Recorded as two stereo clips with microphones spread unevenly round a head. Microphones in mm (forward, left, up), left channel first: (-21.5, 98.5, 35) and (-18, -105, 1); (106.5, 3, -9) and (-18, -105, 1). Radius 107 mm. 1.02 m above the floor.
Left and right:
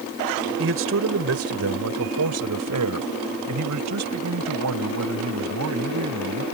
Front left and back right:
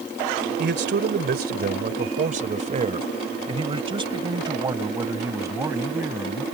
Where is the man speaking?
120° right; by 6.4 s 60° right.